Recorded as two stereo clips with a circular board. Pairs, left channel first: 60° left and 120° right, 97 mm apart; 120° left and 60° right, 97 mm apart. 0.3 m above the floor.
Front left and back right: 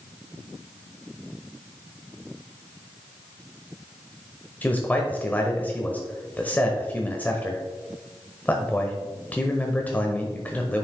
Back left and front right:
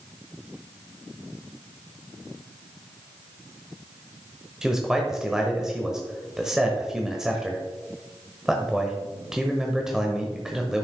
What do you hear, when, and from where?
4.6 s a man speaking: 15° left, 1.1 m